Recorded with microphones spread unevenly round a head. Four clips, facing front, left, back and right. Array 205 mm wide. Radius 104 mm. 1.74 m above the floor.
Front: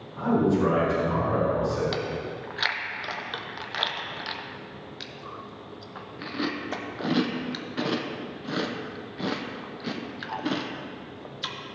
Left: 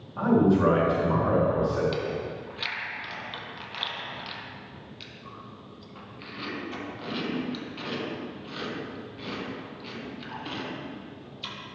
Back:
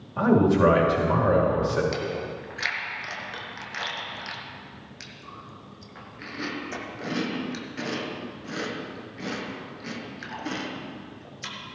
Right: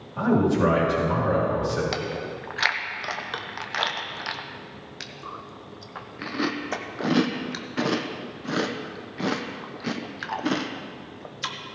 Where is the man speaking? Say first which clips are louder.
Even, back 3 dB; 165° right, 4.5 m.